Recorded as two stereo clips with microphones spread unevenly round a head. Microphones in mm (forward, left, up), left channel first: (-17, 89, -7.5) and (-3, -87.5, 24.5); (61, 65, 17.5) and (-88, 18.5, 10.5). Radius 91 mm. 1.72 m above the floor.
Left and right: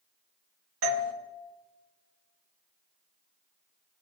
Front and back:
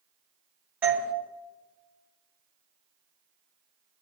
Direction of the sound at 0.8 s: 80° right.